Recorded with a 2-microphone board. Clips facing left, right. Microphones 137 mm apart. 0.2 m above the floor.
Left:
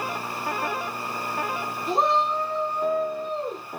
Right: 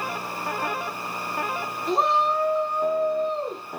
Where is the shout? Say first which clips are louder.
Right 1 dB; 5° left (ahead or behind), 1.9 m; by 3.6 s 30° right (ahead or behind), 3 m.